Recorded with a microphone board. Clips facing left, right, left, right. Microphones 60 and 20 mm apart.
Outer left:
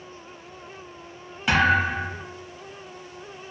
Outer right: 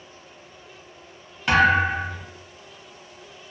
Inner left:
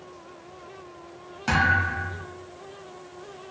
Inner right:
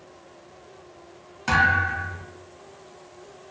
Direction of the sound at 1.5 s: 5° left (ahead or behind).